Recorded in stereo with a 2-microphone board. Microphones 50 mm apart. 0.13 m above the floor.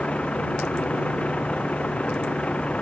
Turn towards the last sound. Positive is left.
turn(degrees=20)  # may be behind; listen again after turning